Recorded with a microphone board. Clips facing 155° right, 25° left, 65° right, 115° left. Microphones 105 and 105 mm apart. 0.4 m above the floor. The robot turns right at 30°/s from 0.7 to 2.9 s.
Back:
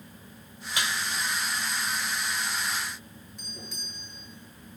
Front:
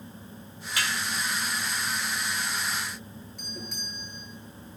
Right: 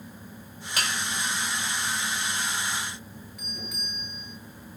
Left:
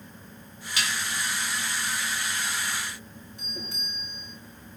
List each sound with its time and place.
0.8 s dishes clattering: 95° right, 0.7 m; by 1.0 s 85° right, 0.7 m
3.4 s a doorbell: 55° left, 7.5 m